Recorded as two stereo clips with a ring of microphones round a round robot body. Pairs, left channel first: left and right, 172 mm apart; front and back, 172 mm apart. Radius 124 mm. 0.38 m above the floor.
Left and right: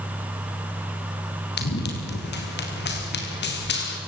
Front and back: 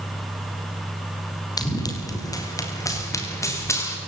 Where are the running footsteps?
70° left, 6 m; by 4.0 s 75° left, 7 m.